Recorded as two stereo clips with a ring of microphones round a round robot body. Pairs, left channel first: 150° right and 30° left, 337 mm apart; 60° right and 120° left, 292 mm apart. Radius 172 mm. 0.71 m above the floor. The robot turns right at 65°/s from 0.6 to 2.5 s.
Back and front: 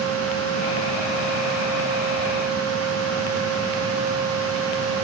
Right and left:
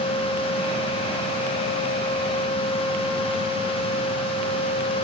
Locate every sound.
Only background noise.